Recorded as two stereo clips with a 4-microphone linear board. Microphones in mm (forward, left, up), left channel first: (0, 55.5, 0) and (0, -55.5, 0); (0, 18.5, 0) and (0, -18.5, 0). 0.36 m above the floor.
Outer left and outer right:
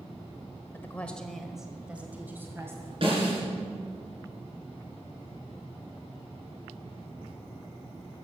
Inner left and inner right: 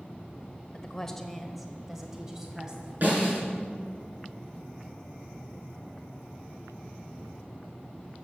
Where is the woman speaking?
20° left (ahead or behind), 1.1 m; by 2.9 s 25° right (ahead or behind), 2 m.